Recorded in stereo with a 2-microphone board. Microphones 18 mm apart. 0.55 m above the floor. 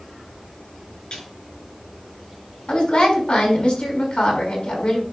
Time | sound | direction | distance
1.1 | a snare drum | 60° left (ahead or behind) | 6 m
2.7 | a woman speaking | 80° left | 5.5 m